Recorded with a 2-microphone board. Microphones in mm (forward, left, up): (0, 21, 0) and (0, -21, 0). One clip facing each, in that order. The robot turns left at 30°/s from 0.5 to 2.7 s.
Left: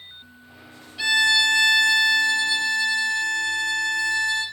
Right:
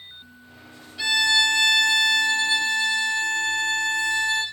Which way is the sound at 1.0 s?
10° left.